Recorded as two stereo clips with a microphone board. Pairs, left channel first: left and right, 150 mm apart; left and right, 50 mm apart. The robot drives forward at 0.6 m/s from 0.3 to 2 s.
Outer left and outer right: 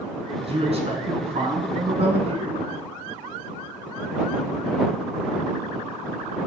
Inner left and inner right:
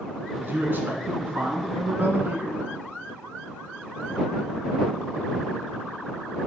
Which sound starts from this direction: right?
A man speaking, at 0.4 s.